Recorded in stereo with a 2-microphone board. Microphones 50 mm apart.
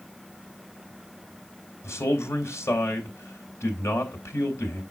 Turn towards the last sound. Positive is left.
turn(degrees=70)  # may be behind; listen again after turning